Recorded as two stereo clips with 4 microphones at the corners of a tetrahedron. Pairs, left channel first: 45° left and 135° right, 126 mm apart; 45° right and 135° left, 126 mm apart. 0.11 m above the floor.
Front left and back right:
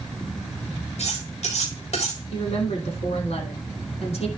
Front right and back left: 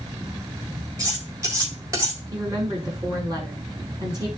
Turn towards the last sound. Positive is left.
turn(degrees=80)